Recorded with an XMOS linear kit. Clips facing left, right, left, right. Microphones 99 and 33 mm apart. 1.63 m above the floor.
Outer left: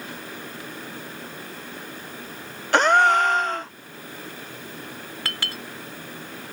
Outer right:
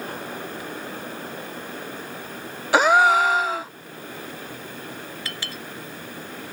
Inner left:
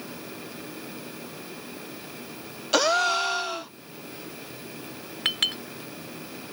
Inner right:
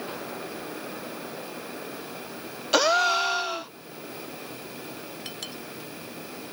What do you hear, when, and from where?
2.7 s a gasp: 5° right (ahead or behind)
5.2 s a clink: 70° left (ahead or behind)